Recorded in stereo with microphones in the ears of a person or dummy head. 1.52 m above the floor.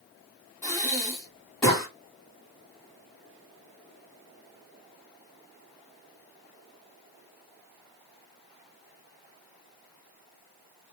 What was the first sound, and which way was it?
Breathing, 10° left (ahead or behind).